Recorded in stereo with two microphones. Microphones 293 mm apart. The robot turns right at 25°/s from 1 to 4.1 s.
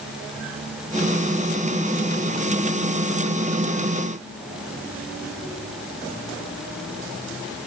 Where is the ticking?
No ticking in this recording.